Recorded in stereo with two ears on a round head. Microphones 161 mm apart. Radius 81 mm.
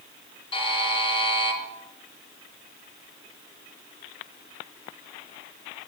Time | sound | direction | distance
0.5 | a buzzer | 30° left (ahead or behind) | 4 m